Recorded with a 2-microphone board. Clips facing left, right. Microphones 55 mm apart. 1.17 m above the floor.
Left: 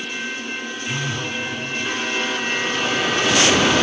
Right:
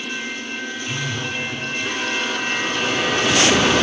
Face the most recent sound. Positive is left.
turn(degrees=15)  # may be behind; listen again after turning